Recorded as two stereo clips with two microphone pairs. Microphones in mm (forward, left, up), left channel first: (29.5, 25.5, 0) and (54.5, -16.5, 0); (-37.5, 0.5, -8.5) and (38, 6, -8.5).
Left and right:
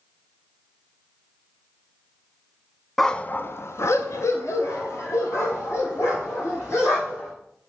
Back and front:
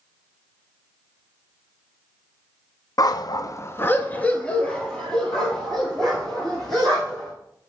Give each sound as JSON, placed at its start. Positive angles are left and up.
{"t": 3.0, "sound": "a dog barking", "azimuth_deg": -150, "distance_m": 0.5}